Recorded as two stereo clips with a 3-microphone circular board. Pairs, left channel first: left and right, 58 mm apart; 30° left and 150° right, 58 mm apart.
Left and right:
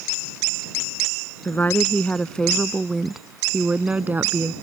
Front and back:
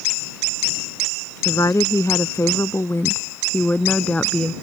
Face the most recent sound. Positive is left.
turn(degrees=-40)